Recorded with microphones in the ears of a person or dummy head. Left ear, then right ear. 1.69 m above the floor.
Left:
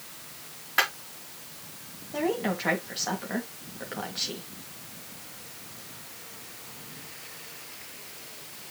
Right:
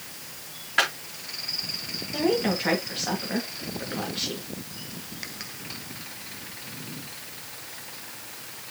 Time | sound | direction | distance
0.8 | a clap | 25° left (ahead or behind) | 4 m
2.1 | a woman speaking | 25° left (ahead or behind) | 2.5 m